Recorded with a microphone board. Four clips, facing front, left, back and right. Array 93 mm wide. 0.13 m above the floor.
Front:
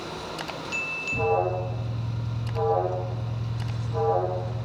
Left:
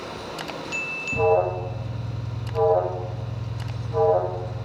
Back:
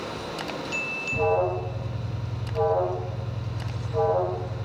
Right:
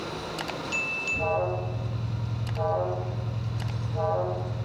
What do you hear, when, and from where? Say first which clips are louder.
1.1 s an alarm: left 7 dB, back 1 dB; 95° left, 5.5 m